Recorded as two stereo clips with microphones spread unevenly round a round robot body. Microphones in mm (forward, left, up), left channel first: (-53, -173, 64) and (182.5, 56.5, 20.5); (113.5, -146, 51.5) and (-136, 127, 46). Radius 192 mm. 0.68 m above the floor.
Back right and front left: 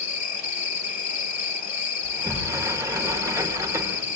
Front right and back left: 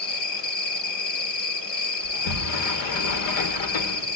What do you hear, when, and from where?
0.0 s an insect: 100° right, 2.5 m
2.0 s a sliding door: 35° right, 1.7 m